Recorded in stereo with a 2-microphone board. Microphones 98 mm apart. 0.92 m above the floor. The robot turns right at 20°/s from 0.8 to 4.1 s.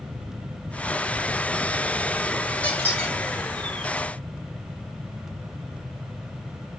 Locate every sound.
2.6 s a squeak: 15° left (ahead or behind), 2 m; by 3.1 s 5° left (ahead or behind), 2 m